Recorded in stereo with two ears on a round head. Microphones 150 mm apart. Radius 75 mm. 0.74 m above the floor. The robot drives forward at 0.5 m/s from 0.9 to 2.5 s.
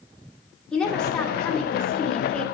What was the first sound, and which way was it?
A woman speaking, 5° left (ahead or behind).